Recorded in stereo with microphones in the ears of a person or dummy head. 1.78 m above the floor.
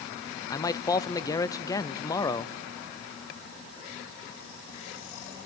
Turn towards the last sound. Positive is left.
turn(degrees=15)  # may be behind; listen again after turning